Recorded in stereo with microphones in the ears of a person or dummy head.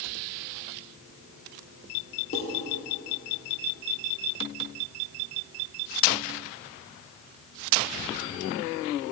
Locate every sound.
2.3 s dishes clattering: 40° left (ahead or behind), 1.9 m